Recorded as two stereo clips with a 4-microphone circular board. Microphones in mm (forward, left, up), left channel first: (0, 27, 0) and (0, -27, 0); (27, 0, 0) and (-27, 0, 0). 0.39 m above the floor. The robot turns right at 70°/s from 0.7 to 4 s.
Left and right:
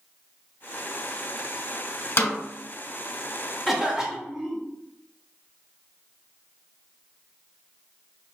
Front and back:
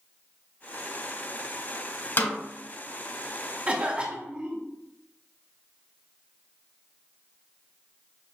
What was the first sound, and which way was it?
A snare drum, 50° left.